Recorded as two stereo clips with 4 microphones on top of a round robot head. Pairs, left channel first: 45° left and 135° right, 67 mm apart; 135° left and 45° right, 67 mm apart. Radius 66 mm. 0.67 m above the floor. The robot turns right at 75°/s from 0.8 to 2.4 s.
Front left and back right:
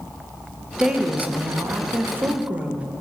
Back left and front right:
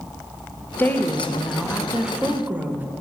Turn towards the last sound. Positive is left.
turn(degrees=-85)